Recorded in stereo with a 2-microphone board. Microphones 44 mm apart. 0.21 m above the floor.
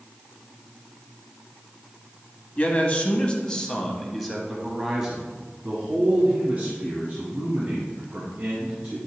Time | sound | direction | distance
2.6 | a man speaking | 35° left (ahead or behind) | 1.3 m